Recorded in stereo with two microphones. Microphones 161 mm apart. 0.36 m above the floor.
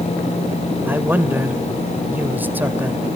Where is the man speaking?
10° right (ahead or behind), 1.4 m.